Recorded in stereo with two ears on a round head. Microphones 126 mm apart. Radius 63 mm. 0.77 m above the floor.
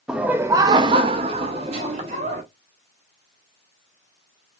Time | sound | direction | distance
0.1 | laughter | 5° right (ahead or behind) | 0.6 m